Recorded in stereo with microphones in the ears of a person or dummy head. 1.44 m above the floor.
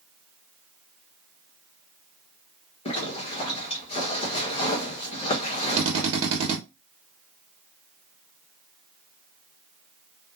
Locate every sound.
2.9 s a zipper: 30° left (ahead or behind), 1.1 m
5.8 s a drill: 35° right (ahead or behind), 1.1 m